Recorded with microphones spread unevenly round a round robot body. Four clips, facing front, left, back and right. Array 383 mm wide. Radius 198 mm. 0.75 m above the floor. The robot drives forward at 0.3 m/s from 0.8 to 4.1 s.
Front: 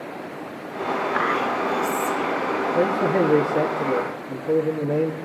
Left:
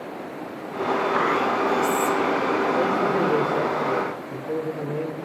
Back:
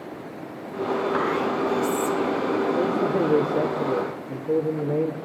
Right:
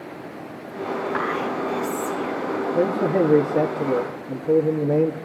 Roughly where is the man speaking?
Ahead right.